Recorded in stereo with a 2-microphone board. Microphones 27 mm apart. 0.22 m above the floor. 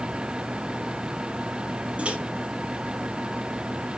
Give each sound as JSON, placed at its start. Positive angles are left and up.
{"t": 2.0, "sound": "a microwave", "side_deg": -55, "distance_m": 4.0}